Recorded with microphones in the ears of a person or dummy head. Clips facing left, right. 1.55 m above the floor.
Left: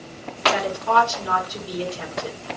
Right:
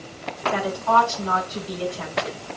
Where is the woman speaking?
20° left (ahead or behind), 4.5 m.